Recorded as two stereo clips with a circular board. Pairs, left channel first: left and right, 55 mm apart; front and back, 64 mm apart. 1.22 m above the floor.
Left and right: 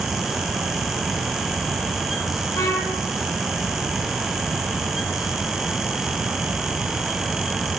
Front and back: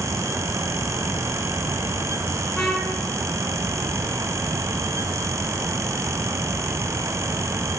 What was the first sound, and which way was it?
A trumpet, 80° left.